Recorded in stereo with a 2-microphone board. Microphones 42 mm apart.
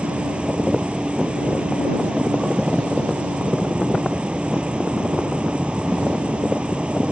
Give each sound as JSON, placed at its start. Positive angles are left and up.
{"t": 0.0, "sound": "an insect", "side_deg": -25}